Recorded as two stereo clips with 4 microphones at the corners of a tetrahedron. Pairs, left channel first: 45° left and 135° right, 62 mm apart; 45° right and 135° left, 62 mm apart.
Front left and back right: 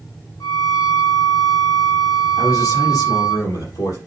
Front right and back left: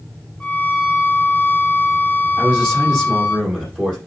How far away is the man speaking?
About 6 m.